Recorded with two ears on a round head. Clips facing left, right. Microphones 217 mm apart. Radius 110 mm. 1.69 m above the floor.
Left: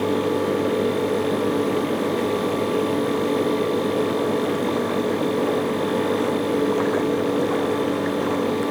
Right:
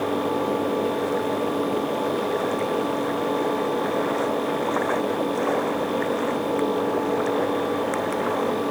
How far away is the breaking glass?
I don't hear breaking glass.